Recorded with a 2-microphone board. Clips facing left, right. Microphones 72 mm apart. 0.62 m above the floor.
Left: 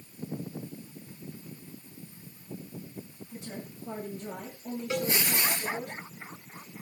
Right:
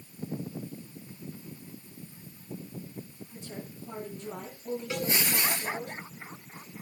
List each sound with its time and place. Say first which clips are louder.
3.3 s a woman speaking: left 1 dB; 60° left (ahead or behind), 9.5 m; by 5.9 s 70° left (ahead or behind), 10.5 m
4.9 s a cowbell: left 3 dB; 15° left (ahead or behind), 1.1 m